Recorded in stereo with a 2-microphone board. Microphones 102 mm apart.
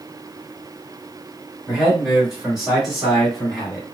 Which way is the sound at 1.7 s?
10° right (ahead or behind).